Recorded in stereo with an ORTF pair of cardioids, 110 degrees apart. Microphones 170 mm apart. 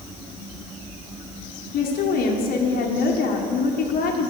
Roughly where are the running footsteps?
I don't hear running footsteps.